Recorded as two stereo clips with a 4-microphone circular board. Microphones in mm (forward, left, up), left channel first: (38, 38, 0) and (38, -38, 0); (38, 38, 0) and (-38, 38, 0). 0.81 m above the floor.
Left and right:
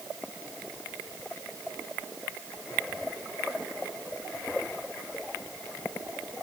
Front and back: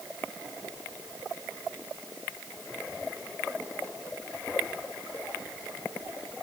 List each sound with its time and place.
Only background noise.